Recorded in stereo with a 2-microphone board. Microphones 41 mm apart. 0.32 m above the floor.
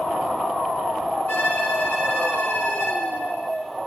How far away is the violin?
About 2 m.